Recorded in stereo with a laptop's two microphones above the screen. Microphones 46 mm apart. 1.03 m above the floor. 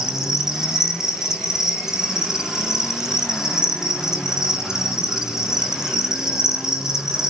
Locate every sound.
0.0 s an insect: 10° right (ahead or behind), 2.5 m